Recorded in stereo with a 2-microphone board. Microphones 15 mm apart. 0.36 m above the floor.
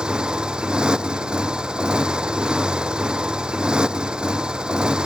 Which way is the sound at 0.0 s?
65° right (ahead or behind).